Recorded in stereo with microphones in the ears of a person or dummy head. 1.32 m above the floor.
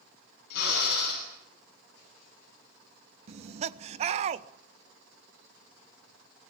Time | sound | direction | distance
0.5 | a drill | 50° left (ahead or behind) | 9.5 m
3.3 | laughter | 40° right (ahead or behind) | 1.1 m